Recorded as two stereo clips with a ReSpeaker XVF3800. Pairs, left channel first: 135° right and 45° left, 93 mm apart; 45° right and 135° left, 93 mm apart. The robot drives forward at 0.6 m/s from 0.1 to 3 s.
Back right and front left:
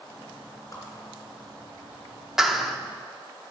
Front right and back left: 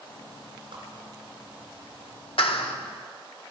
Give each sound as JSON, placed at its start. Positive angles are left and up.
{"t": 0.7, "sound": "a whoosh", "azimuth_deg": 165, "distance_m": 4.0}
{"t": 2.4, "sound": "a clap", "azimuth_deg": -40, "distance_m": 1.1}